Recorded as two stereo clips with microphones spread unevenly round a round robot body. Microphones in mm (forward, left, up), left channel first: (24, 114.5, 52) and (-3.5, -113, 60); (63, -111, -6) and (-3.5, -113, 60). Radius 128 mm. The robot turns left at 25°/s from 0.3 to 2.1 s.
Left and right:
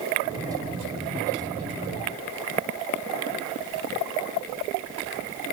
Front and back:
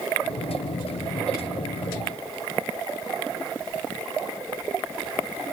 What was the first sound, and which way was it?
Only background noise.